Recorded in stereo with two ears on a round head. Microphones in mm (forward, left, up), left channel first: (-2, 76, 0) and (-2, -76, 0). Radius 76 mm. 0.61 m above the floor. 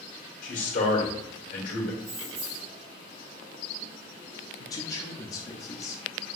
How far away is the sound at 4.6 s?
About 0.6 m.